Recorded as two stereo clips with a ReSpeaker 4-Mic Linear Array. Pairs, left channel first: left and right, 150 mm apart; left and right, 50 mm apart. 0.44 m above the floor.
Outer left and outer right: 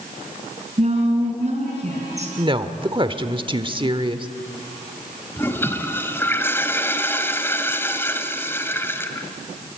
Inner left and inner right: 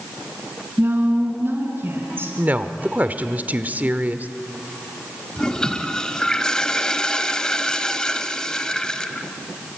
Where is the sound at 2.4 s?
35° right (ahead or behind), 1.4 m.